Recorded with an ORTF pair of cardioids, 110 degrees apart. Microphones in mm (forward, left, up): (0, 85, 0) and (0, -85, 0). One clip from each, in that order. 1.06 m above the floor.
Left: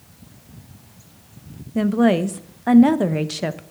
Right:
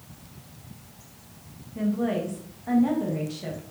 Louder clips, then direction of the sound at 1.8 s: Left 9 dB; 70° left.